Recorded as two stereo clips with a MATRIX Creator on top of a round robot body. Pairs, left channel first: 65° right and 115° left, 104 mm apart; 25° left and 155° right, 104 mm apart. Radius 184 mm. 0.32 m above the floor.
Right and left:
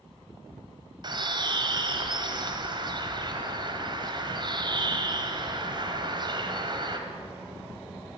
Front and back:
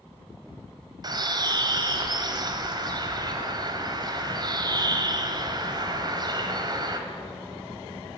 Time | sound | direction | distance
1.0 | a bird | 155° left | 0.9 m